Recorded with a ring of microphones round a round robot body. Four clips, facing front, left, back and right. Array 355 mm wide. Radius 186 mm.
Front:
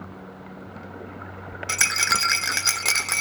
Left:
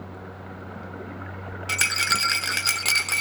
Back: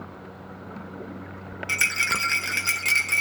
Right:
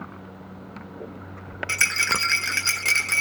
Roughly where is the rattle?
Ahead left.